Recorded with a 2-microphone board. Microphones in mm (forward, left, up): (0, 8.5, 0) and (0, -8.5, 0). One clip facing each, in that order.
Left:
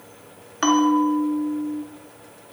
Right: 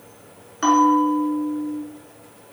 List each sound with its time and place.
0.6 s a bell: 20° left (ahead or behind), 0.7 m